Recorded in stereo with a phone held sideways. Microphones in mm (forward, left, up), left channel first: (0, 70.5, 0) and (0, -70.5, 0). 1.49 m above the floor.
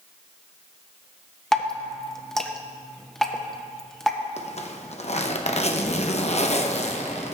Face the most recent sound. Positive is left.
turn(degrees=50)  # may be behind; listen again after turning